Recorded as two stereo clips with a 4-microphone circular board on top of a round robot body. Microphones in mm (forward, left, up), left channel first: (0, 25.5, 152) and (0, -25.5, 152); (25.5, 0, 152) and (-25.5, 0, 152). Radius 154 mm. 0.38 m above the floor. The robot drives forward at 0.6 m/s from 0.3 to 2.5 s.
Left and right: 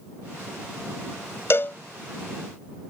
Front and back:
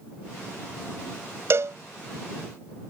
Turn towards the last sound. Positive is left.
turn(degrees=160)